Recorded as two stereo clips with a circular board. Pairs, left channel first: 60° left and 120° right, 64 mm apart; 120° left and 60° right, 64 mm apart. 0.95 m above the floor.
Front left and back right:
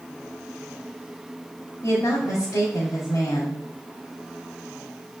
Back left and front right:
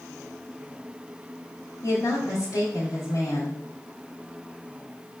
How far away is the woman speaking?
About 2 m.